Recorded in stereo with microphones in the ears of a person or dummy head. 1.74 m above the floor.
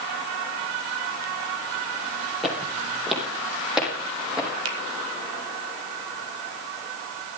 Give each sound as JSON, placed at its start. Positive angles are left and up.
{"t": 2.4, "sound": "footsteps", "side_deg": 0, "distance_m": 3.0}
{"t": 4.7, "sound": "a finger snap", "side_deg": -70, "distance_m": 1.1}